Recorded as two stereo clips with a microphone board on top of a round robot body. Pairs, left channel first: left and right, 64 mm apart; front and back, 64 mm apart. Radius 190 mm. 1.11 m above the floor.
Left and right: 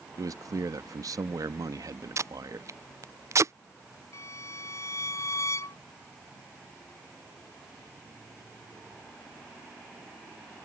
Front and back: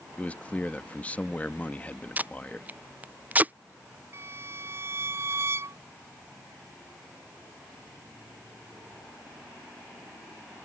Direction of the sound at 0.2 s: 70° right.